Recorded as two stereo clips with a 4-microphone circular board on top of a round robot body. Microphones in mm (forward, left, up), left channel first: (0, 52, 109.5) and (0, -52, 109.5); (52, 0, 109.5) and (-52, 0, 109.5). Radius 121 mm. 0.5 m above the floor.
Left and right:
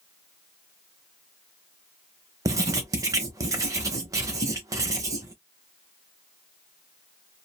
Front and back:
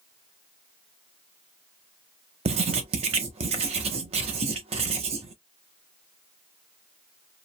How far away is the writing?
About 0.6 m.